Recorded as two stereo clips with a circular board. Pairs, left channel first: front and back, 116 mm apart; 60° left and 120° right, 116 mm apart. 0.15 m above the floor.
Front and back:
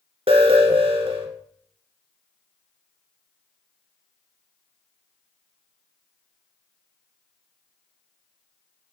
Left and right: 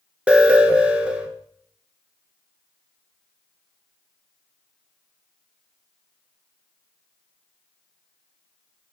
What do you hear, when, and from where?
0.3 s an alarm: 165° left, 1.2 m